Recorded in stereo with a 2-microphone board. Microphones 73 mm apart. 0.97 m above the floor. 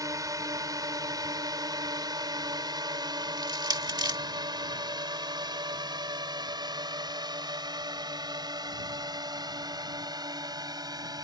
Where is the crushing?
75° right (ahead or behind).